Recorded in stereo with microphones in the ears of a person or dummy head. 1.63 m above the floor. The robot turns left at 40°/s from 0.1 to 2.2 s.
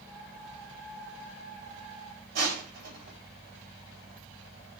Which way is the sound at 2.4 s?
50° right (ahead or behind).